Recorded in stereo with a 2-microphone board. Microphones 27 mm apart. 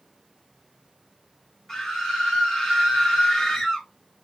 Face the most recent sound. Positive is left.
turn(degrees=15)  # may be behind; listen again after turning